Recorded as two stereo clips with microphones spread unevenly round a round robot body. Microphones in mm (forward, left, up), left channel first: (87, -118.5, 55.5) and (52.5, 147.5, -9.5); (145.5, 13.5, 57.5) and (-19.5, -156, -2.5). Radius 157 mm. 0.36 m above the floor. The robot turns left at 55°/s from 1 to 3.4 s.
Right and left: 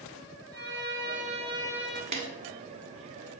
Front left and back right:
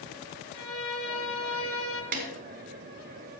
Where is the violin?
70° left, 1.3 m; by 2.0 s 15° left, 1.3 m.